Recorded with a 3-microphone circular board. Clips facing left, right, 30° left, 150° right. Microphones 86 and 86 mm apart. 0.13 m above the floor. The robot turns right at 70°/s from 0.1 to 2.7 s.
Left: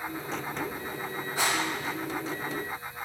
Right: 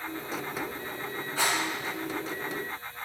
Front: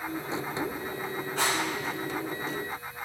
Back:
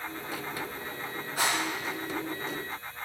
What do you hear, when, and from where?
1.4 s a rattle: 145° left, 1.3 m; by 1.6 s 160° left, 1.3 m